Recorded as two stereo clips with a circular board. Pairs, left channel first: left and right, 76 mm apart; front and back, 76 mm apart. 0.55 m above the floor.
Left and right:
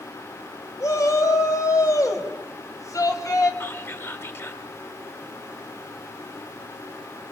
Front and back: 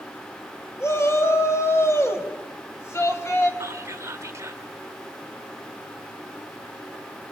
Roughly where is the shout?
Ahead left.